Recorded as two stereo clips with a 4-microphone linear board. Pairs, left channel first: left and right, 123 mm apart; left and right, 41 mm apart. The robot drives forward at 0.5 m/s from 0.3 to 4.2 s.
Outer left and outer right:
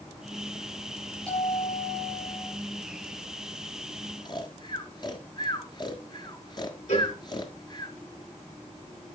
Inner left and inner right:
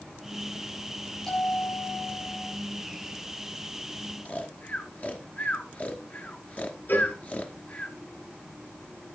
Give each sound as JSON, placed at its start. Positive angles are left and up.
{"t": 1.3, "sound": "a bell", "side_deg": 10, "distance_m": 7.0}
{"t": 4.2, "sound": "snoring", "side_deg": 35, "distance_m": 1.4}
{"t": 6.9, "sound": "a cowbell", "side_deg": 80, "distance_m": 2.5}